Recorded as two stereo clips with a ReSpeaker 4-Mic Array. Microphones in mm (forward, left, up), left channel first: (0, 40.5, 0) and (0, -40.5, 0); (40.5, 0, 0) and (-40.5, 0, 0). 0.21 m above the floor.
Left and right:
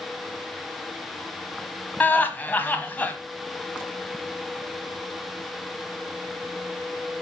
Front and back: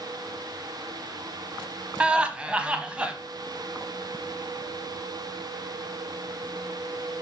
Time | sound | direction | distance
2.0 | laughter | 125° left | 1.1 m